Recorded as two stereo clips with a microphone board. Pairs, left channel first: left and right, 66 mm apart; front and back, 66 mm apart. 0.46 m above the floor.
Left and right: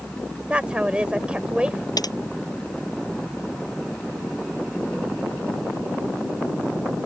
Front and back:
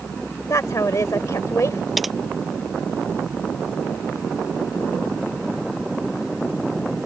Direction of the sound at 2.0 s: 90° left.